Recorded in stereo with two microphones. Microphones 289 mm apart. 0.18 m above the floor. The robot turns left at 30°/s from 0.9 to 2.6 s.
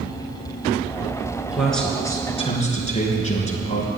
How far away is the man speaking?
About 3 m.